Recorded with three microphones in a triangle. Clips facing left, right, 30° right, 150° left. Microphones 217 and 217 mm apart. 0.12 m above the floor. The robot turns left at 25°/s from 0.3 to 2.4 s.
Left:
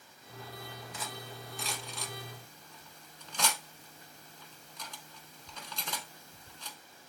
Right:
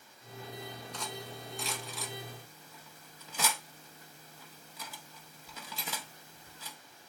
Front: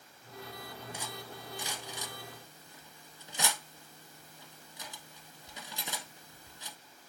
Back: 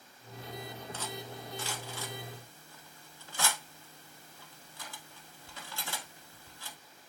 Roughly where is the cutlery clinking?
Ahead.